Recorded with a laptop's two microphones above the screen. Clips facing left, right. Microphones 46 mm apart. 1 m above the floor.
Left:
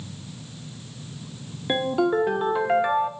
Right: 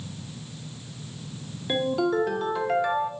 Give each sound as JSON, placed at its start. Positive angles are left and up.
{"t": 1.7, "sound": "a ringtone", "side_deg": 20, "distance_m": 0.8}